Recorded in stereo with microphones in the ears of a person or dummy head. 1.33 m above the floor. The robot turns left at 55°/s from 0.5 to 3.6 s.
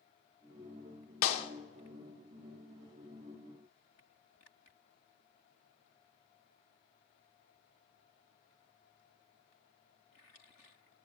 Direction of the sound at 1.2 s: 40° left (ahead or behind).